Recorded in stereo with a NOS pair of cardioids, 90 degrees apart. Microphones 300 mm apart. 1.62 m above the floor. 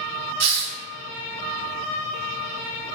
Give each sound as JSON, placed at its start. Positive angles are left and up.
{"t": 0.4, "sound": "a hiss", "azimuth_deg": -60, "distance_m": 0.6}